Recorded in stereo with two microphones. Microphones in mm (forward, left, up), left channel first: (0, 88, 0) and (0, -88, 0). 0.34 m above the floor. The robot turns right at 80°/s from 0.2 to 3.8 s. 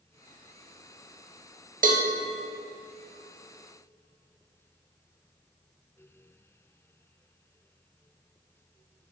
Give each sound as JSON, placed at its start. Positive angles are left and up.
{"t": 1.8, "sound": "a cowbell", "side_deg": -50, "distance_m": 0.7}